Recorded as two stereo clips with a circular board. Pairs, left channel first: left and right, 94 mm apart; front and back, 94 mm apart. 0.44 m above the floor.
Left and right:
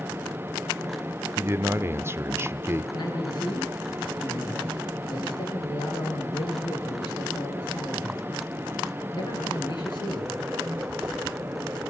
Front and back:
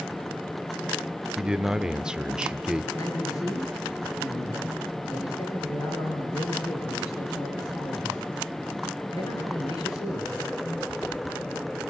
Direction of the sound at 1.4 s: 110° right.